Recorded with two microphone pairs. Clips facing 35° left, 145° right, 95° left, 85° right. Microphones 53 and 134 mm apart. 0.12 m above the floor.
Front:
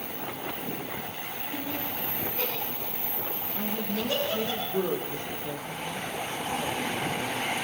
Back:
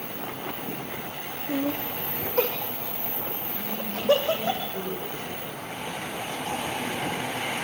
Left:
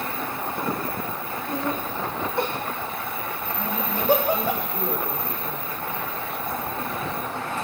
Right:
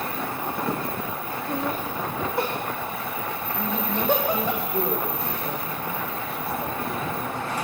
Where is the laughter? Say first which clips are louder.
Back 8 dB, even; 165° right, 4.5 m; by 4.5 s 175° left, 5 m.